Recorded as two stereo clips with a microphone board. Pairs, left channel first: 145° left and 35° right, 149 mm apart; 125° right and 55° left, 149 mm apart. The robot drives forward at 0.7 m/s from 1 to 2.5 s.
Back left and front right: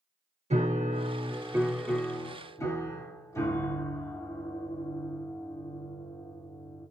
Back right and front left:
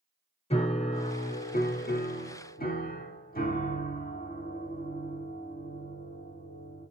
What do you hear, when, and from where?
0.5 s a piano: 75° right, 0.7 m; by 6.9 s 140° right, 1.1 m